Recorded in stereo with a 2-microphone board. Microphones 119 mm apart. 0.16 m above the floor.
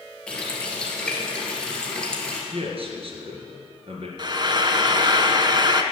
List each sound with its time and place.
0.3 s a running tap: 10° left (ahead or behind), 2.5 m
2.5 s a man speaking: 60° right (ahead or behind), 2.5 m
4.2 s frying: 45° right (ahead or behind), 0.7 m